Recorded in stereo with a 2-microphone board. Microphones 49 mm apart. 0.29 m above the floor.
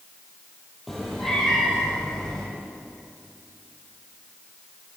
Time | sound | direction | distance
0.9 | a cat meowing | centre (ahead or behind) | 3 m